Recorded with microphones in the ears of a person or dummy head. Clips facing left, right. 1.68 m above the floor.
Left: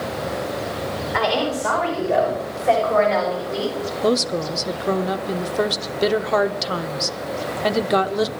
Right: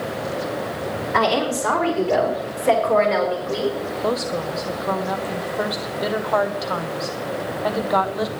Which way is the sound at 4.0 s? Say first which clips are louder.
Left 4 dB; 35° left (ahead or behind).